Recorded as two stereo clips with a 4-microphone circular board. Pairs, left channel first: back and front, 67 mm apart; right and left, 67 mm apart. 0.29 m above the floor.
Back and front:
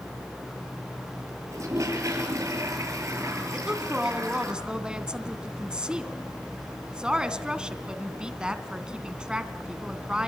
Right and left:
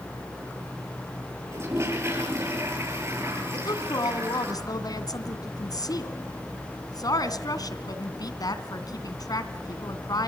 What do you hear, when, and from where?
1.5 s a toilet flushing: 40° left, 7.5 m
3.5 s a woman speaking: 80° right, 2.5 m